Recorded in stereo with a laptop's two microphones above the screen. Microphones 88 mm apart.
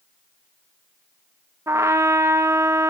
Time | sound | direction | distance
1.7 | a trumpet | 30° right (ahead or behind) | 0.6 m